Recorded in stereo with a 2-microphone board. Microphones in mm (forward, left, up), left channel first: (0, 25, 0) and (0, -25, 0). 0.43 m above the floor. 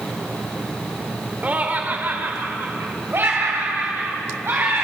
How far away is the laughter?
About 1.6 m.